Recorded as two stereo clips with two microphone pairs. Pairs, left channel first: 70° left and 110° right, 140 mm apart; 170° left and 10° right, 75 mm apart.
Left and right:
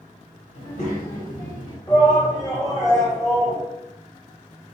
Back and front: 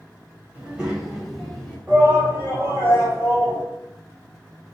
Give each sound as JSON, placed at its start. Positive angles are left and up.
{"t": 0.5, "sound": "a child speaking", "azimuth_deg": 60, "distance_m": 1.6}
{"t": 1.9, "sound": "a shout", "azimuth_deg": 30, "distance_m": 1.9}